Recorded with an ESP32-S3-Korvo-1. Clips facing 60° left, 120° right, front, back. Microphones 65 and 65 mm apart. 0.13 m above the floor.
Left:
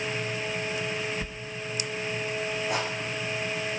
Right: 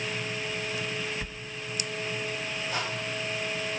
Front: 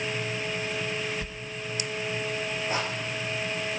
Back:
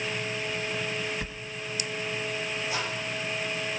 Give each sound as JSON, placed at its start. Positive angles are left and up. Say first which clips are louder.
{"t": 1.2, "sound": "a sliding door", "louder": "left 2 dB, back 1 dB", "azimuth_deg": 155, "distance_m": 0.9}
{"t": 2.7, "sound": "a rattle", "louder": "left 2 dB, front 4 dB", "azimuth_deg": 45, "distance_m": 7.5}